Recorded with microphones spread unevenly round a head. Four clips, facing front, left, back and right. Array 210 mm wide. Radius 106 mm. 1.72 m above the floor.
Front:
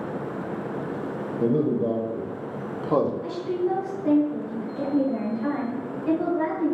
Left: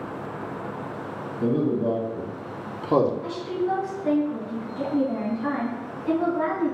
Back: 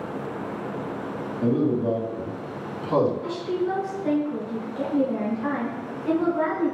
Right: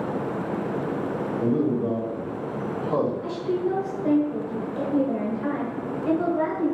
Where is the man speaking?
Straight ahead, 1.6 m; by 3.1 s 80° left, 1.1 m.